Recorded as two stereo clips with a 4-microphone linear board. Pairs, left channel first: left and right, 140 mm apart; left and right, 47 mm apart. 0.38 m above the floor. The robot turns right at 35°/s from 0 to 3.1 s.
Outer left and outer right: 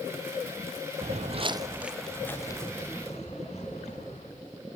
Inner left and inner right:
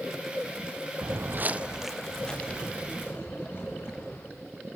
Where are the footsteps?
35° right (ahead or behind), 0.5 m; by 4.3 s 50° left (ahead or behind), 4.5 m.